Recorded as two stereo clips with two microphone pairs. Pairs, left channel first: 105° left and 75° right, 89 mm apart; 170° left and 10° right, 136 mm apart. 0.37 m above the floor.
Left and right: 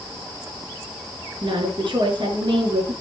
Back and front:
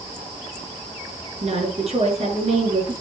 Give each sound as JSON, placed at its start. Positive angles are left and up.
{"t": 1.4, "sound": "a woman speaking", "azimuth_deg": -50, "distance_m": 6.0}